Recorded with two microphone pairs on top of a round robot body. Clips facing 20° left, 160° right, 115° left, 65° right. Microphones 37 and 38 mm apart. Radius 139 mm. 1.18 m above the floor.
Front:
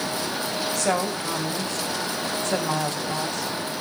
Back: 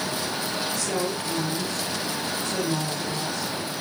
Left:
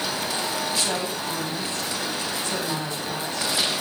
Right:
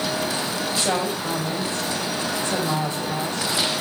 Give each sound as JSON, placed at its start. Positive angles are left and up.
{"t": 0.8, "sound": "a woman speaking", "azimuth_deg": 0, "distance_m": 6.0}